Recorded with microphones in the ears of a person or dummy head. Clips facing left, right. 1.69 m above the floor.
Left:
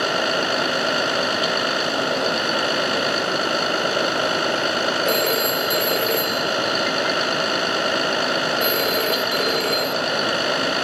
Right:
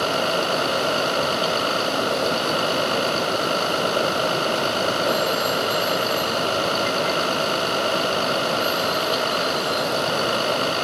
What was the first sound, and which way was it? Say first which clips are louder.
A vehicle: even; 15° left (ahead or behind).